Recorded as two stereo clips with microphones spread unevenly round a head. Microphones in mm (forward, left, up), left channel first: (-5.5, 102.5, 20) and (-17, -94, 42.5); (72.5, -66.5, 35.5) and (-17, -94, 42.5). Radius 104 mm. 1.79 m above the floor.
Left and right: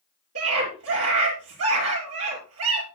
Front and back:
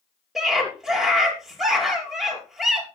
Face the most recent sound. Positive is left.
turn(degrees=-75)